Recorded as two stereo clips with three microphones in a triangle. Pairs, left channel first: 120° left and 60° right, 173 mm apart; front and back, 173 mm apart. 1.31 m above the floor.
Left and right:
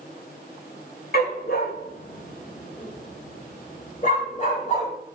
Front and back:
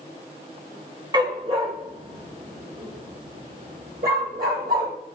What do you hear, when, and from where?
1.1 s a dog barking: 120° left, 1.6 m; by 4.9 s 160° left, 3.5 m